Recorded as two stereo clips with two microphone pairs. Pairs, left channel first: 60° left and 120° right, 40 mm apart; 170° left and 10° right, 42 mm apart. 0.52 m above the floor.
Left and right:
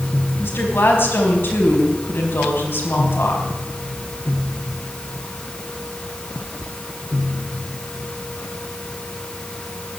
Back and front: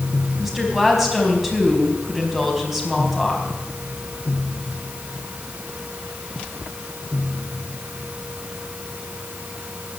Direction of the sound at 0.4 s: 75° left.